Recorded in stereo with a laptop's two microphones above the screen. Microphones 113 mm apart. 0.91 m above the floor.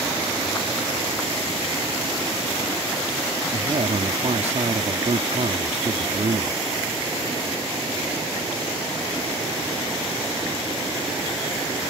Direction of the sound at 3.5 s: 75° right (ahead or behind).